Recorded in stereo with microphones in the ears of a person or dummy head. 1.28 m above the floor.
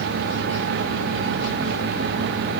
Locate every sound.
Only background noise.